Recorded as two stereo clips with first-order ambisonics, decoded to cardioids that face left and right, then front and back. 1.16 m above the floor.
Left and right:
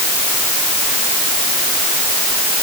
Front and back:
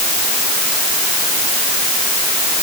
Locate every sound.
Only background noise.